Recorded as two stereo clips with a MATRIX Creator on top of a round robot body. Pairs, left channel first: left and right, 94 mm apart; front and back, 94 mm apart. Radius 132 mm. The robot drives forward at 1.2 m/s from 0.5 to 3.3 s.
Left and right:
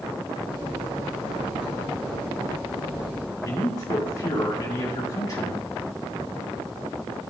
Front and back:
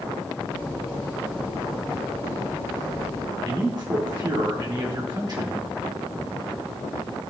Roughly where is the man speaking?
Behind left.